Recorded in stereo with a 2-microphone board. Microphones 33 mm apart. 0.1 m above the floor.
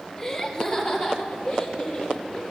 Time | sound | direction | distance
0.2 | laughter | 20° left (ahead or behind) | 1.9 m